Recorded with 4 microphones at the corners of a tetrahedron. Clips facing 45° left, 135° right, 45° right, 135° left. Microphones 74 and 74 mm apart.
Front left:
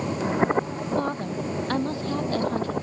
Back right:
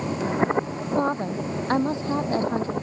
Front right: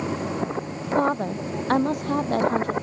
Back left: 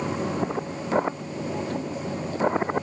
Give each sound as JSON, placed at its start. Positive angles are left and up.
{"t": 1.0, "sound": "a woman speaking", "azimuth_deg": -65}